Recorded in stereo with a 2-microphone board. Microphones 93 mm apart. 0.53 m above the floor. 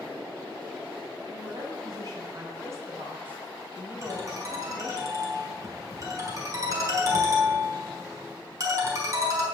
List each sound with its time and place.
1.3 s a woman speaking: 55° right (ahead or behind), 5.5 m; by 5.0 s 20° left (ahead or behind), 3.5 m
4.0 s a ringtone: 40° right (ahead or behind), 3.5 m